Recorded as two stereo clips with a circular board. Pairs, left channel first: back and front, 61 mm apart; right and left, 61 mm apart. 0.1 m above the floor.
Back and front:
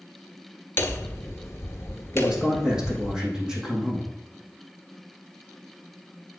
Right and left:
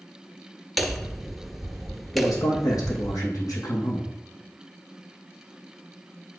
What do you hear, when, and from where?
0.8 s hammering: straight behind, 1.3 m
2.1 s a man speaking: 80° right, 4.5 m